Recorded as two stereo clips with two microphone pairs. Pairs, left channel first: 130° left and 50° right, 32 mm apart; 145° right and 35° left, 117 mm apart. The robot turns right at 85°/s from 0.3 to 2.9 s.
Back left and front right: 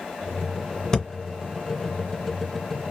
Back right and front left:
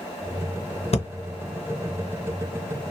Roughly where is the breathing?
Behind.